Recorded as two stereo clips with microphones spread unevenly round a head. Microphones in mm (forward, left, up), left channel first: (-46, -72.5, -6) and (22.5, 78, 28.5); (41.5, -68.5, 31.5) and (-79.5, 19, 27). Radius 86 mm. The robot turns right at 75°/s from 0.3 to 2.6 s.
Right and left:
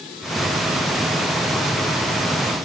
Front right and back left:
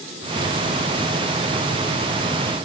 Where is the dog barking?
I don't hear a dog barking.